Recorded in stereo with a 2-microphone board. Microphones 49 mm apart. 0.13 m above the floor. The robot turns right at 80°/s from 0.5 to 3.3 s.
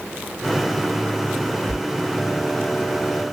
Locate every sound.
1.7 s a sliding door: 35° right (ahead or behind), 0.6 m; by 1.8 s 25° right (ahead or behind), 0.6 m